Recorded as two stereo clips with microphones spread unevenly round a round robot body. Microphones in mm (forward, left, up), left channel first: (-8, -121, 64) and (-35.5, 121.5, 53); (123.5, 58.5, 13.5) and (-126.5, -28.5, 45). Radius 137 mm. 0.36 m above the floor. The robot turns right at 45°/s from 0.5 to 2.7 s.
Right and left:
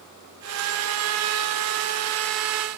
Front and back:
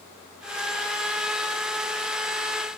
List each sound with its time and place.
Only background noise.